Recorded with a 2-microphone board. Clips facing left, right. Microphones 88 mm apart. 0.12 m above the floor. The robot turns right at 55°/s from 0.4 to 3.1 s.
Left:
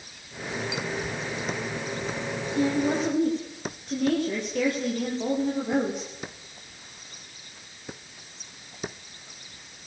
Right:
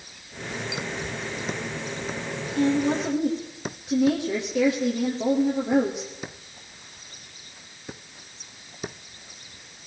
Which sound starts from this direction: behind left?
A woman speaking, at 2.5 s.